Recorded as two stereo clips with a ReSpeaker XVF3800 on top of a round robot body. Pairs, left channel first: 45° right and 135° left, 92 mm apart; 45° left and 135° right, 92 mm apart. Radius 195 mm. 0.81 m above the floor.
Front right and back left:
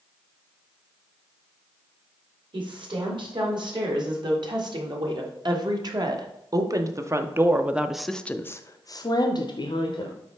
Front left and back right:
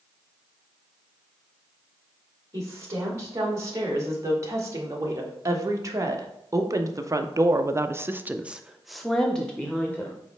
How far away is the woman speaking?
About 3 m.